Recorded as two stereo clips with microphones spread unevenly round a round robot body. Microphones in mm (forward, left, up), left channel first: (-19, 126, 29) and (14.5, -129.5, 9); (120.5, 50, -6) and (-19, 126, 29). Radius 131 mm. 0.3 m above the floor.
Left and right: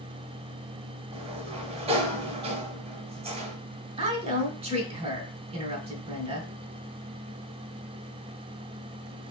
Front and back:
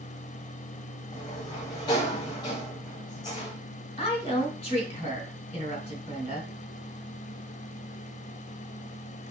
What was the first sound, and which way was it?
A sliding door, 40° right.